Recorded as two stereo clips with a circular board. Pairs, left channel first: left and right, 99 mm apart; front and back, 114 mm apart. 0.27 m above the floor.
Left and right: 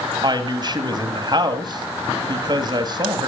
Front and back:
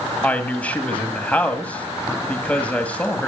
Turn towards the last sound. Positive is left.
turn(degrees=-75)